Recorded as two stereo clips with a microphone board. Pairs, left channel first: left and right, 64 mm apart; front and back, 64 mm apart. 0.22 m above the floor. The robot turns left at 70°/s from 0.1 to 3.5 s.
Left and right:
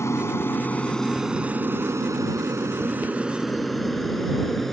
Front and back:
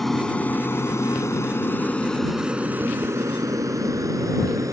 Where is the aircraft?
85° left; by 4.7 s 175° left.